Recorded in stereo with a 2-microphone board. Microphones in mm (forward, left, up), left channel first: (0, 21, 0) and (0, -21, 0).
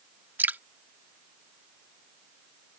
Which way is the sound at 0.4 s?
50° right (ahead or behind).